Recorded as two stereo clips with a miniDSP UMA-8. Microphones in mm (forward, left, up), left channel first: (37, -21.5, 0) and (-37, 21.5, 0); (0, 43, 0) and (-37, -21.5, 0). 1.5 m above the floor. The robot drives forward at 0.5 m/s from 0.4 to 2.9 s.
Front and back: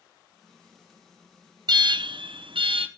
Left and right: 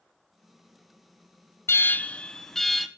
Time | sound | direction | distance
1.7 | an alarm | 115° left | 0.5 m